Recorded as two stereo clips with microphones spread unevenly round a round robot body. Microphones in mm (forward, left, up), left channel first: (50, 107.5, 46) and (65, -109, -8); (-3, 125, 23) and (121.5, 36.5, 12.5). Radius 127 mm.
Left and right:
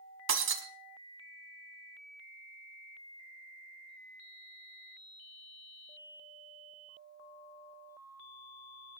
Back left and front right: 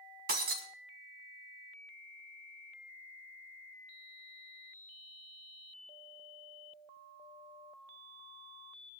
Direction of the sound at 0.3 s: 65° right.